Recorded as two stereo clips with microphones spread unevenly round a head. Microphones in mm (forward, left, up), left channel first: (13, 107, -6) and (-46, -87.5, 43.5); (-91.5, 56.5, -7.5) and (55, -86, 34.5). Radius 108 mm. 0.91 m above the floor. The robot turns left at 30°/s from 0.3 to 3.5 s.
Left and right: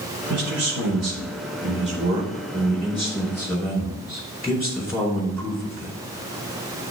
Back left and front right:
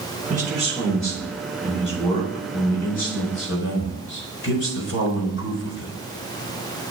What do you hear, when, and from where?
0.3 s a man speaking: 100° right, 4 m; by 5.9 s 165° left, 4 m